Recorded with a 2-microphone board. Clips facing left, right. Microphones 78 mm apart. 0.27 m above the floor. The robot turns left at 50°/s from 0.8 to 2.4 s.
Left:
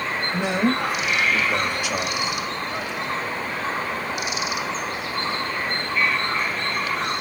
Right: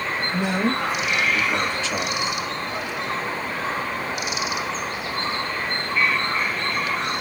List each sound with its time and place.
0.3 s a man speaking: 20° left (ahead or behind), 0.9 m; by 2.3 s 5° left (ahead or behind), 0.9 m